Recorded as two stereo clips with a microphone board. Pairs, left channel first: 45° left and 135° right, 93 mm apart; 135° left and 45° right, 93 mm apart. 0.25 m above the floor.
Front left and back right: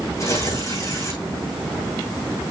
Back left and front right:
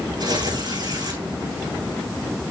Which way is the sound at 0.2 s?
10° right.